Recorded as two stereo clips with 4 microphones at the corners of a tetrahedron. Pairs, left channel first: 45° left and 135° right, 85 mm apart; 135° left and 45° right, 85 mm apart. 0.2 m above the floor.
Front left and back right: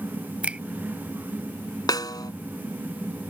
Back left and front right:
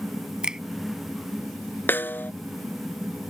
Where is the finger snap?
100° right.